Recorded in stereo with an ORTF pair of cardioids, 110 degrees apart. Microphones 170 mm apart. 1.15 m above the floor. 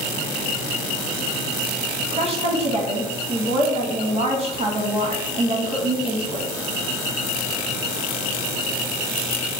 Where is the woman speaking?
40° right, 1.3 m.